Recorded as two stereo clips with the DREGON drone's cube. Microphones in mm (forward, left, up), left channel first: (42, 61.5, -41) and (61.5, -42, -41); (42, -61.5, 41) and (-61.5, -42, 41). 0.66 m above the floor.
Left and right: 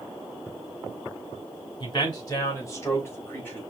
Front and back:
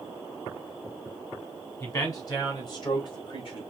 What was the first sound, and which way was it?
A man speaking, 50° left.